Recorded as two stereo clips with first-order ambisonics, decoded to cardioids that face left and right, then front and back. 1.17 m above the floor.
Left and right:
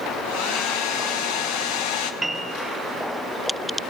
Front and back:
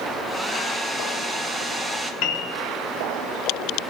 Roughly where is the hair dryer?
Left.